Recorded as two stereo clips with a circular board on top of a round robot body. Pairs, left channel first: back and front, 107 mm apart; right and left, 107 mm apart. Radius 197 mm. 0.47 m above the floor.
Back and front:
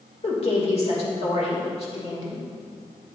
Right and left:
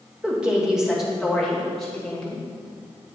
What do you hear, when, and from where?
0.2 s a woman speaking: 165° left, 3 m; by 2.4 s 170° right, 3 m